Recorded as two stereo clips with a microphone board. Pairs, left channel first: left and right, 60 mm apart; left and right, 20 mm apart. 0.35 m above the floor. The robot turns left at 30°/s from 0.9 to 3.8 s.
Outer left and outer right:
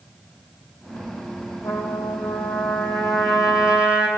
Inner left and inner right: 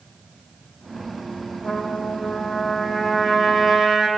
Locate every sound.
1.6 s a trumpet: 45° left, 4 m; by 4.1 s 15° right, 4 m